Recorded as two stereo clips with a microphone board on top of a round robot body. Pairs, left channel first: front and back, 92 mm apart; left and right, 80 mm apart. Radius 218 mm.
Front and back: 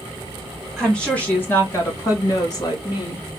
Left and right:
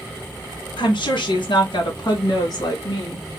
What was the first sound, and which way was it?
A woman speaking, 85° left.